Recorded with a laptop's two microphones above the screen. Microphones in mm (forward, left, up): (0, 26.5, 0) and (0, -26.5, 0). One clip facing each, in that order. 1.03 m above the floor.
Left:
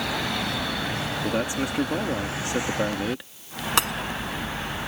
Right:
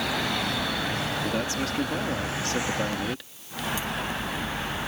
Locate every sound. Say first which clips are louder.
1.2 s a man speaking: left 2 dB; 15° left (ahead or behind)
3.8 s breaking glass: left 8 dB; 85° left